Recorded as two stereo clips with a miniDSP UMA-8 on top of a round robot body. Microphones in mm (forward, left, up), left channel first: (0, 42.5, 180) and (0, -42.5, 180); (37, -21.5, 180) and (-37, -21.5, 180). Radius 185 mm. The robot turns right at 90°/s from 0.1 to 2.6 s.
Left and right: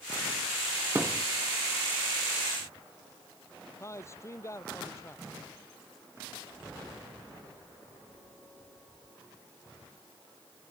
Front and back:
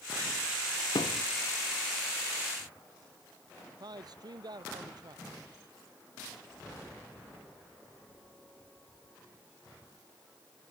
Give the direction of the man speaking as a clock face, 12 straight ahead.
7 o'clock.